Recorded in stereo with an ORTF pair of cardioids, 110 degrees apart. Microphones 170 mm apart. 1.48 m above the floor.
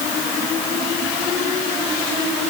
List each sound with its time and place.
Only background noise.